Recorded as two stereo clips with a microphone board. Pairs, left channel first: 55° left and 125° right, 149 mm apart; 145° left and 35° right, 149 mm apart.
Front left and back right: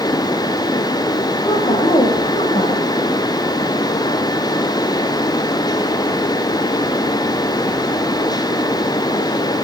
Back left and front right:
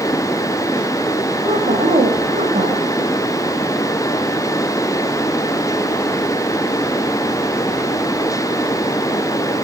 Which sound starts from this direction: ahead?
A woman speaking, at 1.4 s.